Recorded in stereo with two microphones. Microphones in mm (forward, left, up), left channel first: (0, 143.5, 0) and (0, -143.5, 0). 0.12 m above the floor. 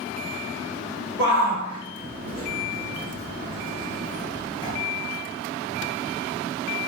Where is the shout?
40° right (ahead or behind), 1.4 m; by 4.7 s 15° left (ahead or behind), 1.9 m.